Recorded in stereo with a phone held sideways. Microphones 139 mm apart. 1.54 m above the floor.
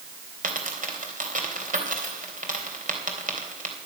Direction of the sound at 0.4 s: 70° right (ahead or behind).